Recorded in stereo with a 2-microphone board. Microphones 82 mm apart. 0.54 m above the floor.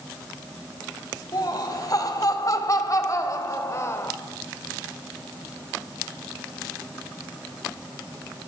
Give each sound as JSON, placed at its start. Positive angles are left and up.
{"t": 1.3, "sound": "laughter", "side_deg": 50, "distance_m": 3.0}